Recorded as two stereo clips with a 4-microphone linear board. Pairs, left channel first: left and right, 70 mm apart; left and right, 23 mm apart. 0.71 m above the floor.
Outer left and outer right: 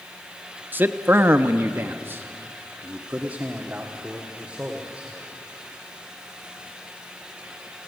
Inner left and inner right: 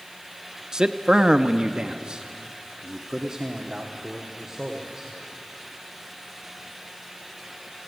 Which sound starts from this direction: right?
A man speaking, at 0.7 s.